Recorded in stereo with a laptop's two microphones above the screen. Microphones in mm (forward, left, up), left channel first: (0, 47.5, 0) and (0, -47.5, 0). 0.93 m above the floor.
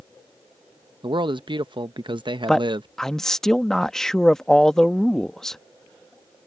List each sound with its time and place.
1.0 s a man speaking: 55° right (ahead or behind)
2.5 s a man speaking: 5° left (ahead or behind)